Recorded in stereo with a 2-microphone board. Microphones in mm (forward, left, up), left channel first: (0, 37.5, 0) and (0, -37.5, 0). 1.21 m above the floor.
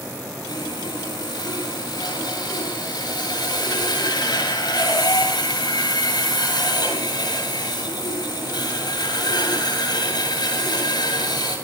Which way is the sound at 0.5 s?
70° left (ahead or behind).